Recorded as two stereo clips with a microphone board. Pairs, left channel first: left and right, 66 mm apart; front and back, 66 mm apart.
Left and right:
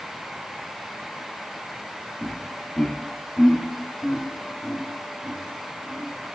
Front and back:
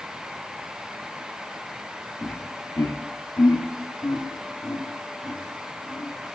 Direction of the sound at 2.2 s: 15° left.